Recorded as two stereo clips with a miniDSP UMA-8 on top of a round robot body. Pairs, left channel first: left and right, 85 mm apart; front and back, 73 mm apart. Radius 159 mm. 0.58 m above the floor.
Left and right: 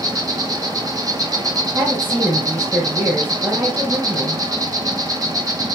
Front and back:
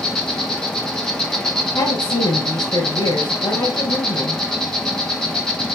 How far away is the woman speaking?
About 3.5 m.